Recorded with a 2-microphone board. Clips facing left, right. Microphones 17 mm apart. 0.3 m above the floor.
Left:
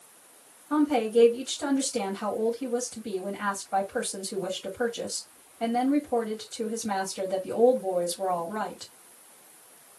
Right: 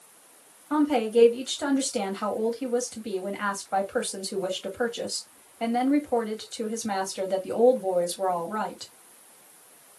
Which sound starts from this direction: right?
A woman speaking, at 0.7 s.